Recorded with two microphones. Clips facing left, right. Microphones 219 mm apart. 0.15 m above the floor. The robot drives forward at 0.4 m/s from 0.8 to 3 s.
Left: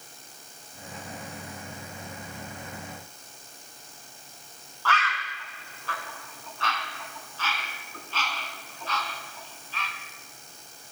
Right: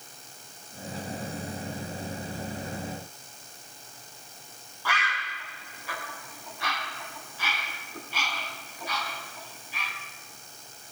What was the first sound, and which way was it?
A bird, 15° right (ahead or behind).